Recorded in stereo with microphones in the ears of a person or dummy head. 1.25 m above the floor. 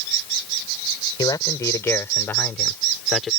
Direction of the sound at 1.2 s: 20° left (ahead or behind).